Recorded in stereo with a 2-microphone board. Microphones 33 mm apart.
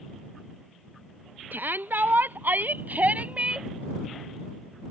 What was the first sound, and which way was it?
A shout, 75° right (ahead or behind).